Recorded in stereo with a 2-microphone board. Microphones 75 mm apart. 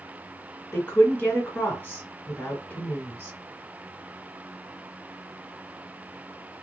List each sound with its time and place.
0.7 s a woman speaking: 25° left (ahead or behind), 1.4 m